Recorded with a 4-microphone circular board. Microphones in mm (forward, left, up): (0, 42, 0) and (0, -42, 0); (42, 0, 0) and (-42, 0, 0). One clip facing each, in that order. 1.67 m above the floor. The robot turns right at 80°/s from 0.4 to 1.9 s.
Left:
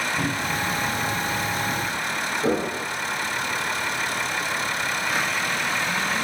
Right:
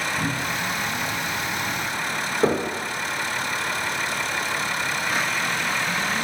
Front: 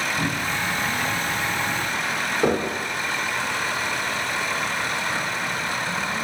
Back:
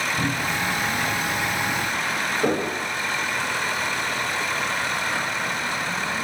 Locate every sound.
0.2 s a cupboard door: 110° left, 1.9 m; by 0.6 s 125° left, 1.9 m
2.4 s knocking: 75° right, 1.4 m